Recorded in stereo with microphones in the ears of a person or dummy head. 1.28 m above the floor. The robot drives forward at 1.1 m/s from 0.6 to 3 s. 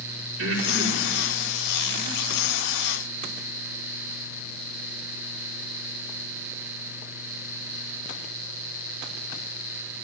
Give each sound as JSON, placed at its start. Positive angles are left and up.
{"t": 0.4, "sound": "breathing", "side_deg": -90, "distance_m": 3.5}